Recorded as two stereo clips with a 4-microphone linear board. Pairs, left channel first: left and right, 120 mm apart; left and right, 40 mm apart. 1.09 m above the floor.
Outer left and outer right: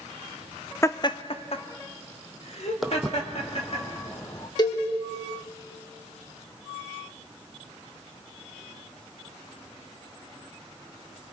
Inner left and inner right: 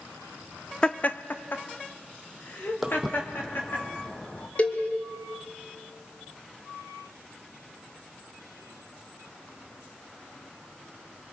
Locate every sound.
0.8 s laughter: 20° left (ahead or behind), 0.5 m; by 3.8 s 60° left (ahead or behind), 3 m
2.8 s footsteps: centre (ahead or behind), 1.6 m; by 4.5 s 30° left (ahead or behind), 1.6 m
4.6 s a cowbell: 35° left (ahead or behind), 1.7 m